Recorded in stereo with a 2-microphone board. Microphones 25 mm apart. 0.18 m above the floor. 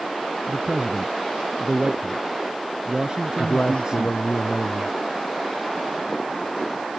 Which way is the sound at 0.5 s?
35° right (ahead or behind).